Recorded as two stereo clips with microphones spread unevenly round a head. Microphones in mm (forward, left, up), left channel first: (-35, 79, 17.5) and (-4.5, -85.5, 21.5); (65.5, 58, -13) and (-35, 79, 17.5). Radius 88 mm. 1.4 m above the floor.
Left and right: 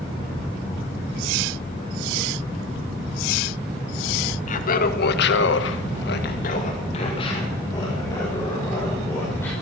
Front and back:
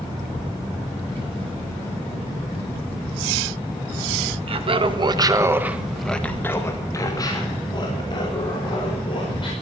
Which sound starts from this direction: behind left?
Laughter, at 4.5 s.